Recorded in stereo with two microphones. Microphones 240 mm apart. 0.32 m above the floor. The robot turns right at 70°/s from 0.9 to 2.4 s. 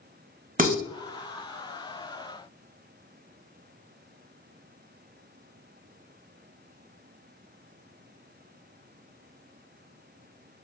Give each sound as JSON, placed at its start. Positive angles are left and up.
{"t": 0.6, "sound": "dishes clattering", "side_deg": -35, "distance_m": 0.9}